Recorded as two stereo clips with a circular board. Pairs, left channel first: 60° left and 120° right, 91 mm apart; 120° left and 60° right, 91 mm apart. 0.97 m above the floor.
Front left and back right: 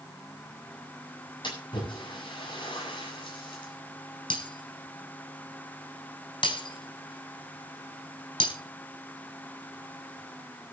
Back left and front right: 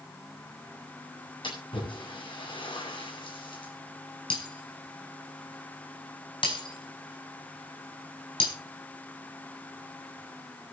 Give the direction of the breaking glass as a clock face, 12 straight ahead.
9 o'clock.